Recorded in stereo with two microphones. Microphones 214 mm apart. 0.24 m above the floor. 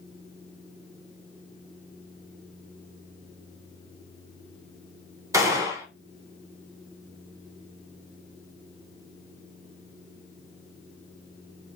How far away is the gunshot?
About 0.8 m.